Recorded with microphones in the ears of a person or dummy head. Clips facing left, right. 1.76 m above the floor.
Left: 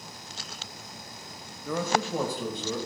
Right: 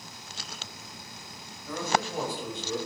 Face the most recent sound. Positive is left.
turn(degrees=80)